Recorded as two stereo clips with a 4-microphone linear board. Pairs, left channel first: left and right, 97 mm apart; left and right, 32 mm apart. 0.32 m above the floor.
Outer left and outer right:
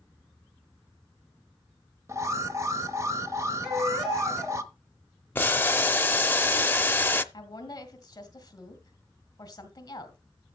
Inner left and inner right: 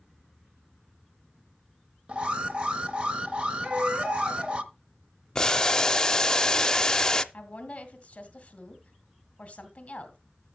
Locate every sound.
2.1 s an alarm: 30° right (ahead or behind), 0.9 m
3.6 s a baby crying: 65° right (ahead or behind), 3.5 m
5.3 s boiling: 20° left (ahead or behind), 0.6 m
7.3 s a woman speaking: 40° left (ahead or behind), 1.9 m